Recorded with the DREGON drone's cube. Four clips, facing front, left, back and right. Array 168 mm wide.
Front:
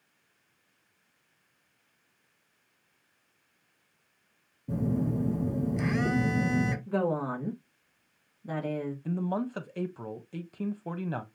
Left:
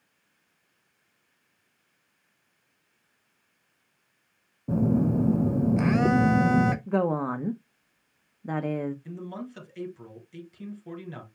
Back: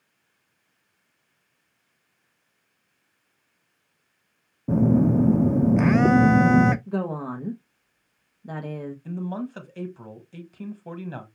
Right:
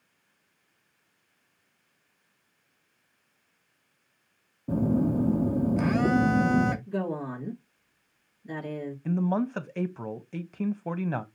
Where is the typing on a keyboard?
No typing on a keyboard in this recording.